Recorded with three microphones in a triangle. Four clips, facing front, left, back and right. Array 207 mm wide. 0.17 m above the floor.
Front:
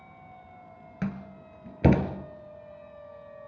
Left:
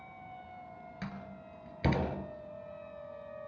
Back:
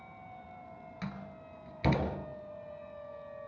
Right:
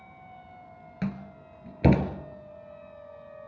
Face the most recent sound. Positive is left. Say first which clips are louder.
# right 11 dB, front 9 dB
turn(degrees=-35)